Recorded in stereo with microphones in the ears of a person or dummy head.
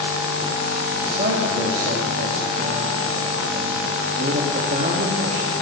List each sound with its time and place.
1.0 s a man speaking: 45° right (ahead or behind), 2 m